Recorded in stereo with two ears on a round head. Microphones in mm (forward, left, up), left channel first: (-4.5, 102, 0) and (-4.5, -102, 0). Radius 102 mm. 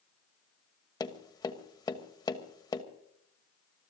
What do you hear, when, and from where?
1.0 s tapping: 15° left (ahead or behind), 1.2 m